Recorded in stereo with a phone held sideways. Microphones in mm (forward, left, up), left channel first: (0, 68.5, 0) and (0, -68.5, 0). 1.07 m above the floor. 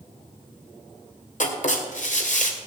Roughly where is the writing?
Left.